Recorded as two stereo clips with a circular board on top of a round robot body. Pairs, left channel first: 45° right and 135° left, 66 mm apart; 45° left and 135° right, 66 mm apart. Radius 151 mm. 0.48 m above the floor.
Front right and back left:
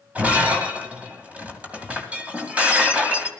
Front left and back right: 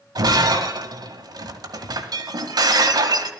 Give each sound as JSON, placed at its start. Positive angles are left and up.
{"t": 0.1, "sound": "breaking glass", "azimuth_deg": -155, "distance_m": 2.0}